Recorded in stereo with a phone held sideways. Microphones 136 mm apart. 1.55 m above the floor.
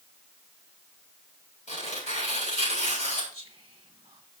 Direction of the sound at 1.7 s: 60° left (ahead or behind).